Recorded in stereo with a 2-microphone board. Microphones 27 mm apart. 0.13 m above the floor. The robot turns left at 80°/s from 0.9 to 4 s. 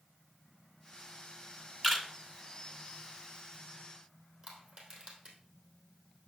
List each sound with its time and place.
1.8 s a camera shutter: 10° left (ahead or behind), 1.5 m; by 2.0 s 15° left (ahead or behind), 1.5 m
4.4 s crushing: 50° right (ahead or behind), 3 m